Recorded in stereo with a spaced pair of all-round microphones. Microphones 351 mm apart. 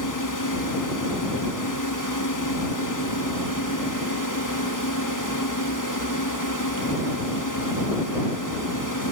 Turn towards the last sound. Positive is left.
turn(degrees=60)  # may be behind; listen again after turning